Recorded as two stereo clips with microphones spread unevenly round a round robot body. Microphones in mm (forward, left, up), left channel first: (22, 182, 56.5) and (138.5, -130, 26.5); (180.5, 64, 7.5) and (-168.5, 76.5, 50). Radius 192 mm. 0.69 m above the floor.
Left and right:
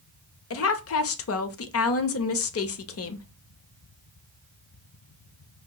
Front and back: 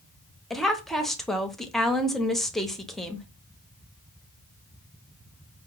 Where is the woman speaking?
75° left, 0.7 m.